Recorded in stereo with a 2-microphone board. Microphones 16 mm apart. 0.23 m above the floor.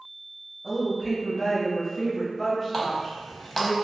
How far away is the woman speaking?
About 1.4 m.